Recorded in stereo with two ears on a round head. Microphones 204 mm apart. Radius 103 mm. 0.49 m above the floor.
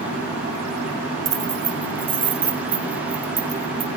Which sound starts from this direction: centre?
Keys jangling, at 1.2 s.